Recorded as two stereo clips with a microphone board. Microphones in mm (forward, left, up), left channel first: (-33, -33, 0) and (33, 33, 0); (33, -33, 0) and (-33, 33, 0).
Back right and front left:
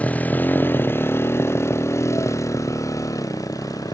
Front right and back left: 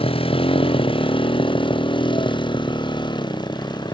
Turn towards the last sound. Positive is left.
turn(degrees=-85)